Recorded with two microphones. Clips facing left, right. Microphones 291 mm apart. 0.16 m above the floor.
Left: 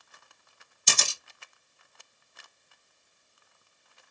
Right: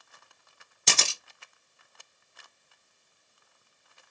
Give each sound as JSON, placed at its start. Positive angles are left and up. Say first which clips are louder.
{"t": 0.9, "sound": "a camera shutter", "louder": "right 2 dB", "side_deg": -75, "distance_m": 1.3}